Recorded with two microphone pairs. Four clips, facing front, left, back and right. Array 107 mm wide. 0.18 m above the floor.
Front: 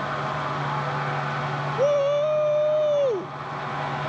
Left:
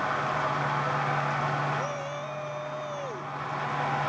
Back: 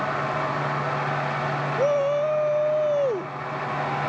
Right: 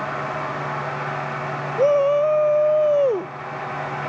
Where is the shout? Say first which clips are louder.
Right 17 dB, front 2 dB; 85° right.